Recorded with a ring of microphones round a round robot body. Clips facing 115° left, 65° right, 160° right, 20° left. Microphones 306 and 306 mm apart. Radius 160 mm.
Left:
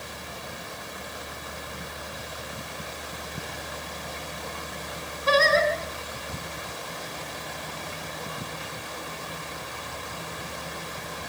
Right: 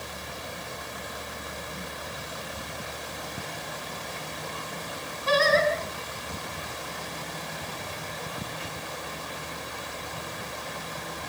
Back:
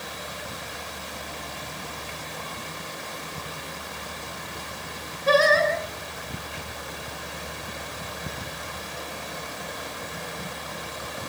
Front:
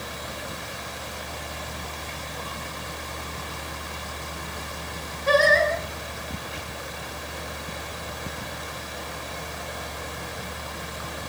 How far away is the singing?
About 5 m.